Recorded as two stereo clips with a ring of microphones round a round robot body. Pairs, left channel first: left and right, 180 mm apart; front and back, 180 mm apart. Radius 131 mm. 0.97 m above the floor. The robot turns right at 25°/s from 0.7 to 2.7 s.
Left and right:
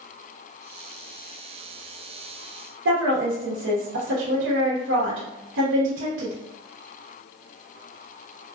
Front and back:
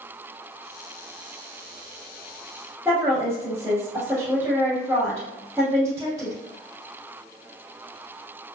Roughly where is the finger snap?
No finger snap in this recording.